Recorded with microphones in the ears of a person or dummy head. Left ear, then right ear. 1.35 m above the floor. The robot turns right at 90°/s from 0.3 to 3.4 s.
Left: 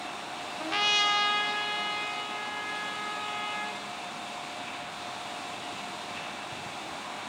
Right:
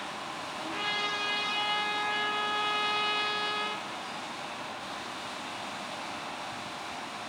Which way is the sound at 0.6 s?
70° left.